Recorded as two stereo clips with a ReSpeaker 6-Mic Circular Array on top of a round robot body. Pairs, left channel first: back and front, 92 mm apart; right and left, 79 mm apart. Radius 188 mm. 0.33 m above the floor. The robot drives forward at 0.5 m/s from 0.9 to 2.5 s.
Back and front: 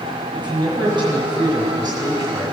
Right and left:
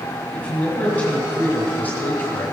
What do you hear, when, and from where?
0.3 s a man speaking: 20° right, 2.5 m; by 2.5 s 30° right, 1.7 m